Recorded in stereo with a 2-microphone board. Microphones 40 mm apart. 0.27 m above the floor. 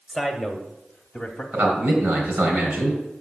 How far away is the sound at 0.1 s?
About 1.1 m.